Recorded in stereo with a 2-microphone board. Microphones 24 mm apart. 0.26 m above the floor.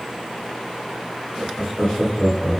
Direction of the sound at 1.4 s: 25° left (ahead or behind).